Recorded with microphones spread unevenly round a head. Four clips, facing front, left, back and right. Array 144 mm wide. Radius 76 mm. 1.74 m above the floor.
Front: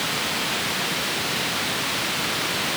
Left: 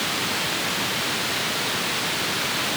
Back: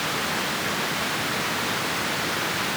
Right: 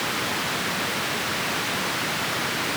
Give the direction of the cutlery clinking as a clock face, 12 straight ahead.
I don't hear cutlery clinking.